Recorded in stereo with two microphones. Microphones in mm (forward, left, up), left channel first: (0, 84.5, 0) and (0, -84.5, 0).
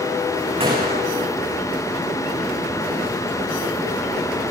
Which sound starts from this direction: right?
A gunshot, at 0.6 s.